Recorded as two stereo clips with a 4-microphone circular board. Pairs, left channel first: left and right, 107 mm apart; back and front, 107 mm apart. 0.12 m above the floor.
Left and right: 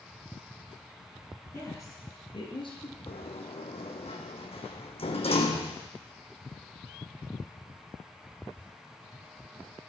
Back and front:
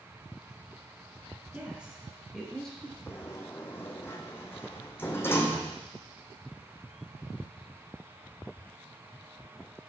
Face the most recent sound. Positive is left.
turn(degrees=110)